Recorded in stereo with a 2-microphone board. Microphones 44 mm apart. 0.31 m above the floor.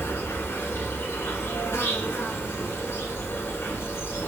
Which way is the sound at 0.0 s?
85° left.